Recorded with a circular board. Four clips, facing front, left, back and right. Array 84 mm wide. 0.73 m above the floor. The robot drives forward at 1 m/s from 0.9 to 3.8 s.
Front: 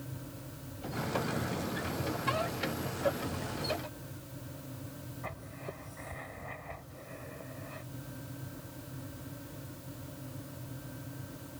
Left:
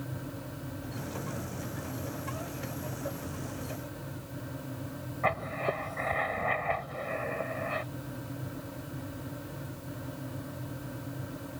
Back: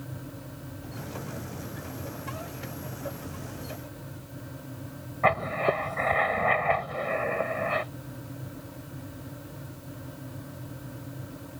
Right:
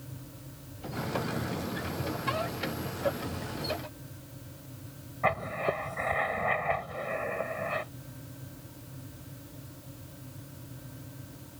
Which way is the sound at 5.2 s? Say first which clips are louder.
Right 2 dB, back 22 dB; 175° right.